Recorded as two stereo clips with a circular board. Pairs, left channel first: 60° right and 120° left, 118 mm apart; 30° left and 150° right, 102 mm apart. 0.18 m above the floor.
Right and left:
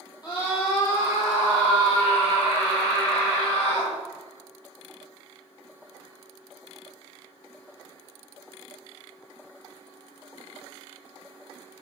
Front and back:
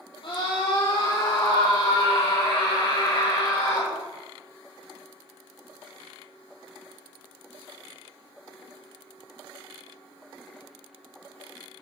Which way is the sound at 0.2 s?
5° right.